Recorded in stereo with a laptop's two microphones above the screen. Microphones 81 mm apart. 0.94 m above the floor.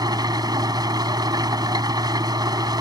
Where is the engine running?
55° right (ahead or behind).